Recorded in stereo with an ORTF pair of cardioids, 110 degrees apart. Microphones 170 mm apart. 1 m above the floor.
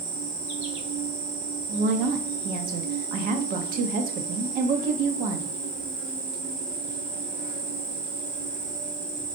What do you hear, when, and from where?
0.0 s an insect: 50° right, 1.2 m
1.7 s a woman speaking: 70° right, 0.7 m